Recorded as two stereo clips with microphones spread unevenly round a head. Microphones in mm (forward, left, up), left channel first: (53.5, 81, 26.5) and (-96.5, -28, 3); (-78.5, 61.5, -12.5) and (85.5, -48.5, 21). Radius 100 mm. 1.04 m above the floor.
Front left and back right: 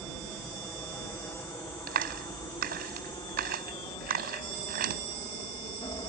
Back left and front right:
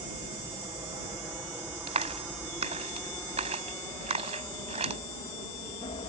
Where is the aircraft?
35° right; by 6.1 s 95° left.